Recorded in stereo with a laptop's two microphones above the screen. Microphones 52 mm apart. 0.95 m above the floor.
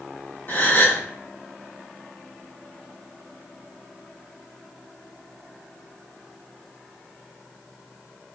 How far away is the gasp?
About 0.9 m.